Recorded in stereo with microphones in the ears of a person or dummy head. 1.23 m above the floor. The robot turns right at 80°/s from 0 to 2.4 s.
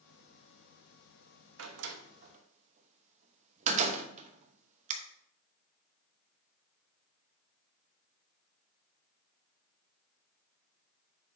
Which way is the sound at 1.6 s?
70° right (ahead or behind).